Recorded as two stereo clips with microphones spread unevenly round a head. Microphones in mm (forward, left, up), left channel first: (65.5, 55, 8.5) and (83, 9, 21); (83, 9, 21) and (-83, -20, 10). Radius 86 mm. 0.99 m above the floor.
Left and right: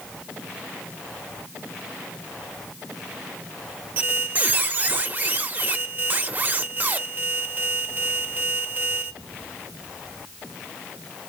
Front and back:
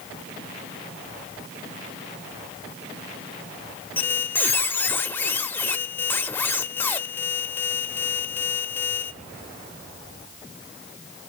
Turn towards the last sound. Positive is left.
turn(degrees=-60)